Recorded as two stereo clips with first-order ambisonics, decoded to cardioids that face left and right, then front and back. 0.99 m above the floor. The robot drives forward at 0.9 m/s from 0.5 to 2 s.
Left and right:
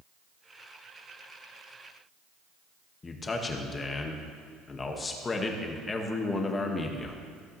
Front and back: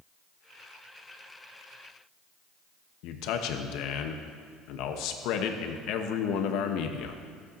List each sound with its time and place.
3.0 s a man speaking: 20° left, 0.9 m